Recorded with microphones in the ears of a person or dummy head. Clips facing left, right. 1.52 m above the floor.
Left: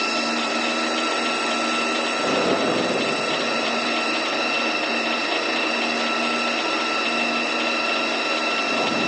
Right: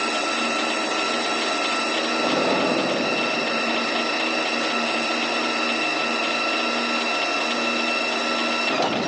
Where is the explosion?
20° left (ahead or behind), 2.5 m.